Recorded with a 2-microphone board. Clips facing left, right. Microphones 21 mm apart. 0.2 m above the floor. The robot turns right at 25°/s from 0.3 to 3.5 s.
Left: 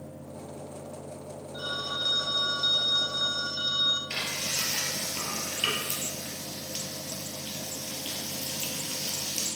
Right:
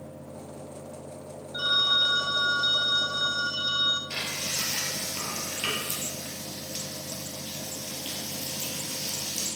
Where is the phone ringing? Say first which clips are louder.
Right 10 dB; 80° right, 1.4 m; by 4.0 s 30° right, 1.4 m.